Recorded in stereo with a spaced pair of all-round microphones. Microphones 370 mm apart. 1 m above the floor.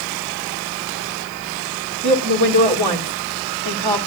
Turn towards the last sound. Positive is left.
turn(degrees=-75)  # may be behind; listen again after turning